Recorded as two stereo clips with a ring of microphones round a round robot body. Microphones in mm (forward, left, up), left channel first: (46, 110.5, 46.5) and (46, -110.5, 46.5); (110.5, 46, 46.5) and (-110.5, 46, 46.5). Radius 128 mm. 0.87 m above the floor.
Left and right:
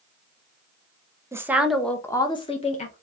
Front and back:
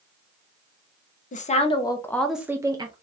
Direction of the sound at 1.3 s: 20° right.